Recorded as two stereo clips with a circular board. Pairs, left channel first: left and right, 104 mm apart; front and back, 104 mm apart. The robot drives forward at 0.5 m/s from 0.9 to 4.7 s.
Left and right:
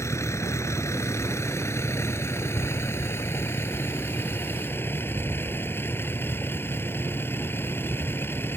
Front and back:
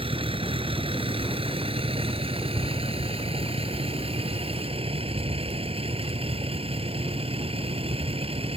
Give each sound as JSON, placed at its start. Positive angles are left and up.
{"t": 0.0, "sound": "a vehicle", "azimuth_deg": 150}